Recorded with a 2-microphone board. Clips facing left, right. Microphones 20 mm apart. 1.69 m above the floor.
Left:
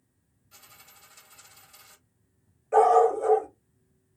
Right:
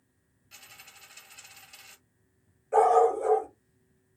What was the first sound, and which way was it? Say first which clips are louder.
A dropped coin: right 3 dB; 40° right (ahead or behind).